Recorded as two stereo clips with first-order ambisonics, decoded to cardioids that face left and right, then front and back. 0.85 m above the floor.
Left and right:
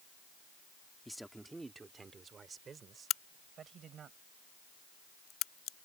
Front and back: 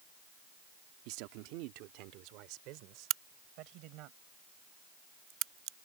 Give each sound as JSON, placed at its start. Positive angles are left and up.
{"t": 1.1, "sound": "a man speaking", "azimuth_deg": 175}
{"t": 3.1, "sound": "a crack", "azimuth_deg": 135}